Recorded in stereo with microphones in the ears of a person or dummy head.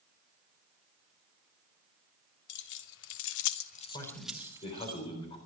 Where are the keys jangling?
65° left (ahead or behind), 1.3 m; by 4.9 s 25° right (ahead or behind), 1.2 m.